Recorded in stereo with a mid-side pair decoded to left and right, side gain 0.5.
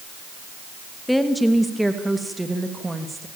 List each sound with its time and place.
1.1 s a woman speaking: 5° left, 2.5 m; by 3.3 s 20° right, 3 m